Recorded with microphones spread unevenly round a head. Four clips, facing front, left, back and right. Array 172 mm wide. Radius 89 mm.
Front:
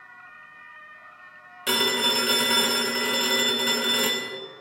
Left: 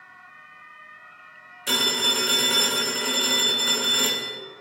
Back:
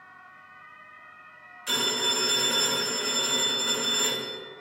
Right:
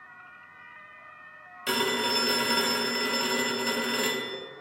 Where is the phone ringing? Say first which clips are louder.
Even, front 5 dB; 15° right, 4.5 m.